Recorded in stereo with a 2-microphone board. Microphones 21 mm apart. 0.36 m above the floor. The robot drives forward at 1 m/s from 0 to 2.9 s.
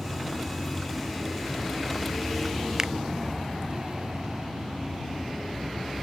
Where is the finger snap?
25° right (ahead or behind).